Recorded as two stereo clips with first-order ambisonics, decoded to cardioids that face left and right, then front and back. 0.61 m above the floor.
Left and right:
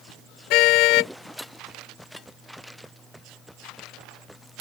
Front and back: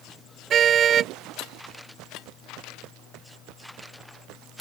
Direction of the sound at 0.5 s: 120° left.